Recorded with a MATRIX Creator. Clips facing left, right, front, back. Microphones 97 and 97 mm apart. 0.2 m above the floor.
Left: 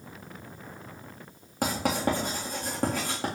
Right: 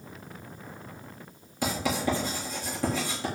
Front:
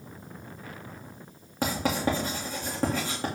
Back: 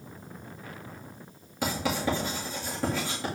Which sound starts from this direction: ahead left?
Writing, at 1.6 s.